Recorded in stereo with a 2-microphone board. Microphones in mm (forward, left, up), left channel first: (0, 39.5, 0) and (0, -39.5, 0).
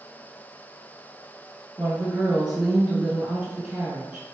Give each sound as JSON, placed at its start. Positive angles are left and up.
{"t": 1.8, "sound": "a woman speaking", "side_deg": -10, "distance_m": 1.1}